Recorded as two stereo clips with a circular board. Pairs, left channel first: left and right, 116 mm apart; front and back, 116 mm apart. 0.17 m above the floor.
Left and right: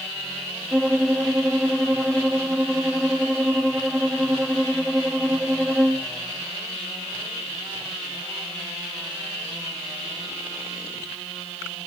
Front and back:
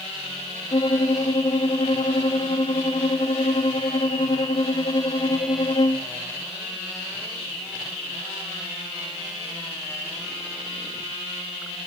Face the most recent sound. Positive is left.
turn(degrees=5)